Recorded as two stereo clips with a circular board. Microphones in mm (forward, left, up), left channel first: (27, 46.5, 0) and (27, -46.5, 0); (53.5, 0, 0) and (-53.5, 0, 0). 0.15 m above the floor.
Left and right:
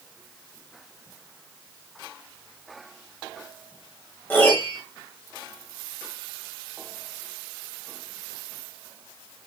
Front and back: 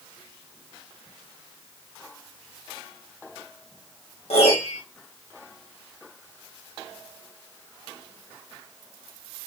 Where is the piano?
20° left, 4 m.